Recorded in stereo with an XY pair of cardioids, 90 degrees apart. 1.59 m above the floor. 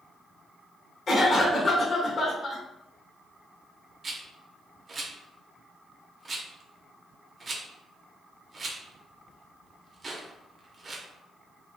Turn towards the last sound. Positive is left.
turn(degrees=-40)